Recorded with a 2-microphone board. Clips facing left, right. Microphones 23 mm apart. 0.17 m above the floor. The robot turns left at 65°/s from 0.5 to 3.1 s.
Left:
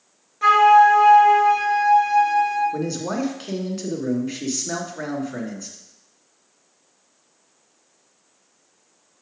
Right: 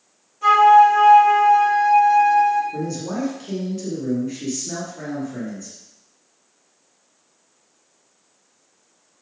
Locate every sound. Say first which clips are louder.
0.4 s a flute: right 1 dB; 105° left, 2.5 m; by 2.6 s 30° right, 2.5 m
2.7 s a man speaking: left 1 dB; 45° left (ahead or behind), 1.5 m